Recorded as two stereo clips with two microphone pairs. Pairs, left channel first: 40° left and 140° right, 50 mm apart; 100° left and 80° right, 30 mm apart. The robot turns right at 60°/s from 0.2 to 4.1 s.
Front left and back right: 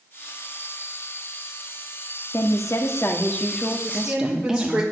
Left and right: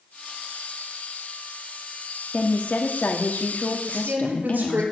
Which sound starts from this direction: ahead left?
A woman speaking, at 2.3 s.